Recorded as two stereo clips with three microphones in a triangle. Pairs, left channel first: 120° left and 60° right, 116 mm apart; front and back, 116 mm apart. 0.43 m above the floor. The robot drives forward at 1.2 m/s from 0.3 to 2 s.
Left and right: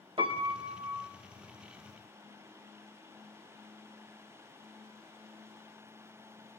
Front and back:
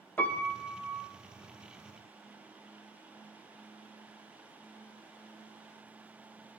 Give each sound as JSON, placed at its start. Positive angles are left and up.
{"t": 0.2, "sound": "a piano", "azimuth_deg": -70, "distance_m": 1.5}